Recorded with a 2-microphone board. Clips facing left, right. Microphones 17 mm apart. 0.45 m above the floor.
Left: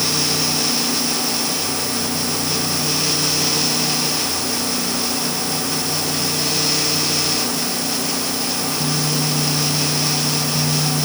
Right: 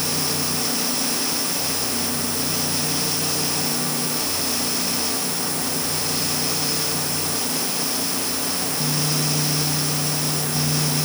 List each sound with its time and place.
Only background noise.